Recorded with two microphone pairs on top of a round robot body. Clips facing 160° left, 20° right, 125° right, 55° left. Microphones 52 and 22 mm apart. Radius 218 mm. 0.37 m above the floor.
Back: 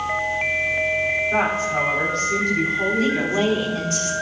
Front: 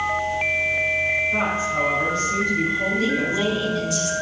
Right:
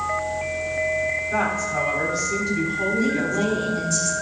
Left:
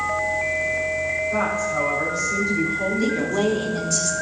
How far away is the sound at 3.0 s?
About 3.5 m.